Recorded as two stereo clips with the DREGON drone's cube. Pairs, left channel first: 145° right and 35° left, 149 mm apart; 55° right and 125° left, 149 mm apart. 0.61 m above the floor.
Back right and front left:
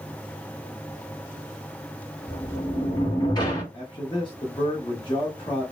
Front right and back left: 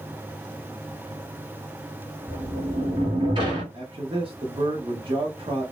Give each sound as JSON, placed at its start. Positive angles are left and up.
{"t": 2.3, "sound": "a sliding door", "azimuth_deg": 165, "distance_m": 1.2}
{"t": 3.7, "sound": "a man speaking", "azimuth_deg": 165, "distance_m": 0.8}